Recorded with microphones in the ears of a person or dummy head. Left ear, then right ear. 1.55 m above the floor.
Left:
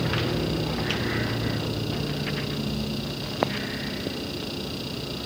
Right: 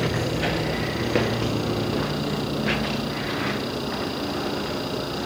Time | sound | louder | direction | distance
0.0 | a vehicle | right 2 dB | 35° right (ahead or behind) | ?